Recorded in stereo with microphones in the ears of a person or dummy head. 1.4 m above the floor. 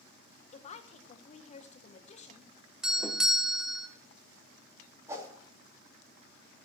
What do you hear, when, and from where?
0.5 s a woman speaking: 40° left (ahead or behind), 1.3 m
2.8 s a doorbell: 5° right (ahead or behind), 1.0 m
5.1 s a whoosh: 20° right (ahead or behind), 3 m